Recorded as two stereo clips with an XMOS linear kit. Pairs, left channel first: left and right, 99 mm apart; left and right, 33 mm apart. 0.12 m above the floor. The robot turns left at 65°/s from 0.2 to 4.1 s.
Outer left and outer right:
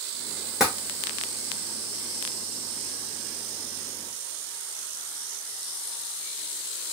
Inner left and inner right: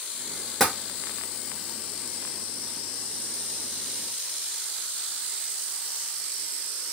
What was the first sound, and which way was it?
Tapping, 5° right (ahead or behind).